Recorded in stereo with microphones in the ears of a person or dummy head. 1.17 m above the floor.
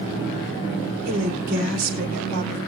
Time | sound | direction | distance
1.1 | a woman speaking | 55° right (ahead or behind) | 4 m